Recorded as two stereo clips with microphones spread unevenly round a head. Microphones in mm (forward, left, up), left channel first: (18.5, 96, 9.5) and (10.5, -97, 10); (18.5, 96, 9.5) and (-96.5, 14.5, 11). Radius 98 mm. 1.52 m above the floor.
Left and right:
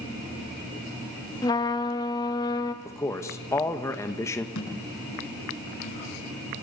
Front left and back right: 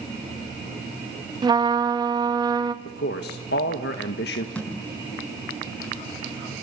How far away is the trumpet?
About 1.4 m.